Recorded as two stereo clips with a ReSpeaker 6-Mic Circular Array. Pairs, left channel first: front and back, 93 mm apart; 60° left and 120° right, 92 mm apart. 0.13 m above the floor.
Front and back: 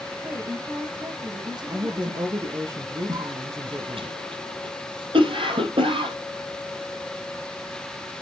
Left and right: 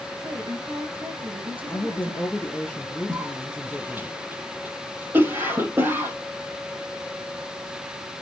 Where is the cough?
175° left, 4 m.